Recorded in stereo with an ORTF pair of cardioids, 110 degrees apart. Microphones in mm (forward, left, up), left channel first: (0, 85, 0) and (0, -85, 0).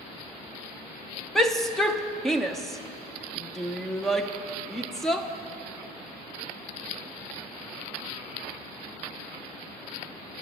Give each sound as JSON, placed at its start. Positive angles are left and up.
{"t": 1.4, "sound": "a shout", "azimuth_deg": 0, "distance_m": 0.7}